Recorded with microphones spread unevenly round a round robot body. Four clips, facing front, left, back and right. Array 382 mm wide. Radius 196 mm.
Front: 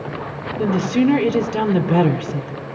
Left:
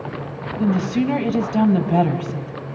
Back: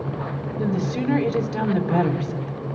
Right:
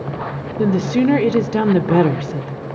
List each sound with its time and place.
0.6 s a woman speaking: 65° right, 1.7 m